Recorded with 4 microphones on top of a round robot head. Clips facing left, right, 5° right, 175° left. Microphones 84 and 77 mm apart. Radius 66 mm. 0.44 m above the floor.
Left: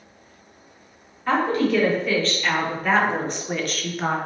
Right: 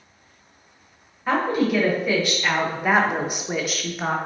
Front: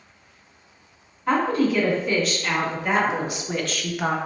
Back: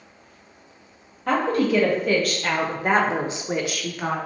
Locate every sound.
1.3 s a woman speaking: 165° right, 2.0 m; by 4.2 s 5° right, 0.7 m